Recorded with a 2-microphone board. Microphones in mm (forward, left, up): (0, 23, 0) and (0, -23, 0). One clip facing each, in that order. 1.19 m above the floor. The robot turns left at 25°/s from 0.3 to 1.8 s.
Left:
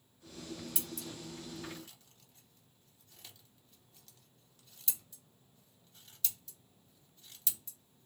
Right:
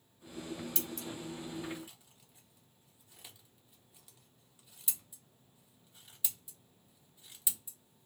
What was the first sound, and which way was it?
Scissors, 10° left (ahead or behind).